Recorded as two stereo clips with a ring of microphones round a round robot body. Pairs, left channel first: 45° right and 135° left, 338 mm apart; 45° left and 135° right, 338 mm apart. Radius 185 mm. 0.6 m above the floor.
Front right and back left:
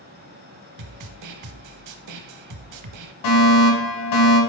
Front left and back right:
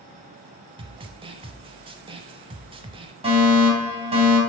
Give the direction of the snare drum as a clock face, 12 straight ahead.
7 o'clock.